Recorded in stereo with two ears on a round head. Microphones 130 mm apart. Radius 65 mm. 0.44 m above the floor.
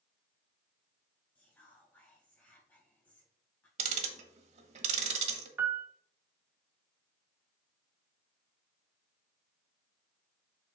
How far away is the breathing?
No breathing in this recording.